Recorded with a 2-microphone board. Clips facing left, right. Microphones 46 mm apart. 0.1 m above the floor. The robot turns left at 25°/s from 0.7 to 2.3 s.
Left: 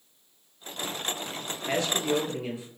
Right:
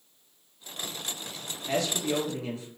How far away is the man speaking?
About 1.5 m.